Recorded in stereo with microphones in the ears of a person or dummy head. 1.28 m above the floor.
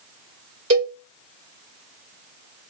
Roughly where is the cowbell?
Right.